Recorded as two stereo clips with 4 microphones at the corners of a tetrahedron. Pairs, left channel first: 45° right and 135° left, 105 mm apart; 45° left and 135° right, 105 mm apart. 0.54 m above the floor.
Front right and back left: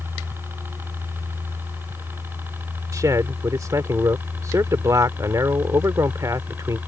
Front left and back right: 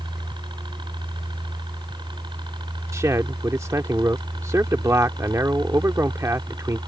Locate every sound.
0.0 s a helicopter: 160° right; by 6.9 s 155° right
2.9 s a man speaking: 175° left